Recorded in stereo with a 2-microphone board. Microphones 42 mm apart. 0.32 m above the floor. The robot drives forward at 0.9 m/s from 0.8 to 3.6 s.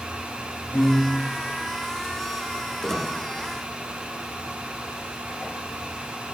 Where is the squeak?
30° left (ahead or behind), 5.5 m.